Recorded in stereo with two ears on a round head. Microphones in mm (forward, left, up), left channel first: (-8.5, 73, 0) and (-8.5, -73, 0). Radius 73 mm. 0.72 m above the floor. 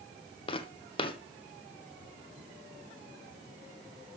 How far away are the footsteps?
About 1.1 m.